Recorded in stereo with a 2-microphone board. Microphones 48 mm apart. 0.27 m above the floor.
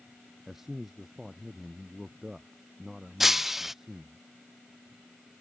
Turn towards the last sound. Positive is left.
turn(degrees=-5)  # may be behind; listen again after turning